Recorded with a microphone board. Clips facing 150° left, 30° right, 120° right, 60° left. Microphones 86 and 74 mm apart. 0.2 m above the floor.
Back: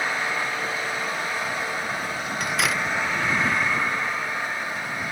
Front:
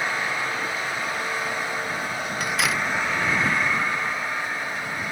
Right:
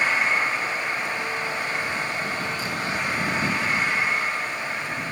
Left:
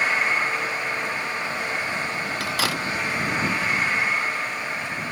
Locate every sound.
2.4 s cutlery clinking: 60° left